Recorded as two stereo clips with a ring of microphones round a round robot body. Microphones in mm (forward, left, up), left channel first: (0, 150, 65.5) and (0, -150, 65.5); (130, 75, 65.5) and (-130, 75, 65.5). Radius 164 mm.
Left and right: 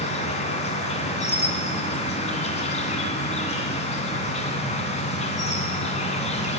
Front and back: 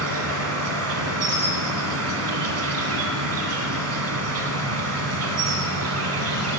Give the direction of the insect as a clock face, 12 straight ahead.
7 o'clock.